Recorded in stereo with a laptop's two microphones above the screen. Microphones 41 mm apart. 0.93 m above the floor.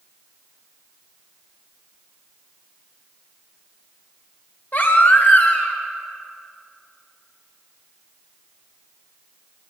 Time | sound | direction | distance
4.7 | a baby crying | 50° left (ahead or behind) | 2.5 m